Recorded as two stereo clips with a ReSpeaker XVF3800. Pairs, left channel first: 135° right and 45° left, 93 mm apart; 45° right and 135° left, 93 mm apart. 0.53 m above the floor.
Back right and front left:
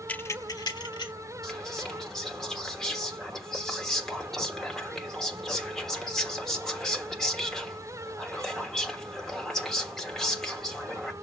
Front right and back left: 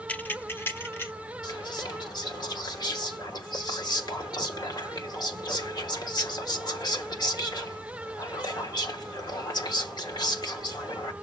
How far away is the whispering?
About 1.3 m.